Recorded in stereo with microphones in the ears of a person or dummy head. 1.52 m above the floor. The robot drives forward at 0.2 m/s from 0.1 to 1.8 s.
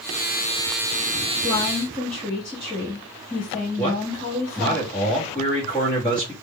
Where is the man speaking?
15° left (ahead or behind), 1.2 m.